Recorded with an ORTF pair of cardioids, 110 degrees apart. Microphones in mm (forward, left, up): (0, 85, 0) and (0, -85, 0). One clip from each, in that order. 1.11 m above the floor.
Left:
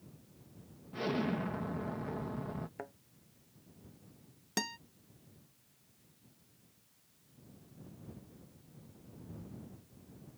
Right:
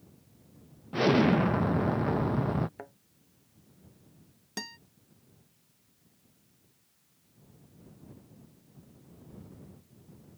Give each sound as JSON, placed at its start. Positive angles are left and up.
{"t": 0.9, "sound": "an explosion", "azimuth_deg": -55}
{"t": 2.8, "sound": "a thud", "azimuth_deg": 0}
{"t": 4.6, "sound": "a guitar", "azimuth_deg": 20}